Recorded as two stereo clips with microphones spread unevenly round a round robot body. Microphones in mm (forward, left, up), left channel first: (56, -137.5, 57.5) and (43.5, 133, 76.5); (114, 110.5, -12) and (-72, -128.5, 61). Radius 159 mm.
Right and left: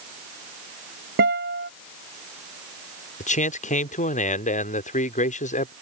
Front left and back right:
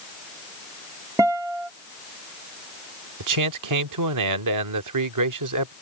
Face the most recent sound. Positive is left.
turn(degrees=-135)